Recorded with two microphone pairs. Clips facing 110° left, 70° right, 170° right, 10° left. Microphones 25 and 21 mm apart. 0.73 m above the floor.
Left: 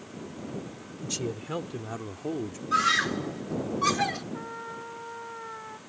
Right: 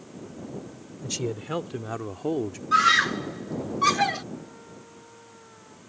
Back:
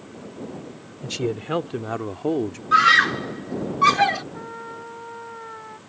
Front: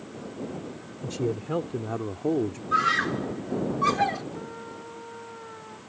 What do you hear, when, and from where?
1.0 s a man speaking: 145° right; by 2.6 s 120° right
2.7 s a scream: 140° right
4.3 s a trumpet: 150° left